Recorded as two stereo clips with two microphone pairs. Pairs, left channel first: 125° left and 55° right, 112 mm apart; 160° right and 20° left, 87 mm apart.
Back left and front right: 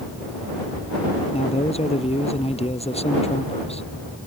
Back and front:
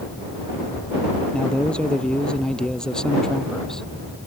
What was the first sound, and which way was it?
A man speaking, 125° left.